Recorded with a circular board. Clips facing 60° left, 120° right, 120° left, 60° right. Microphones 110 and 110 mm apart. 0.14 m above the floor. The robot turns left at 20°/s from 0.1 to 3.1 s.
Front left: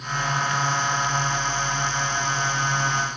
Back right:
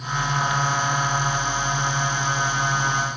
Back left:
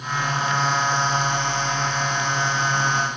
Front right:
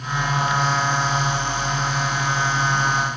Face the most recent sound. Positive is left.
No sound to turn to.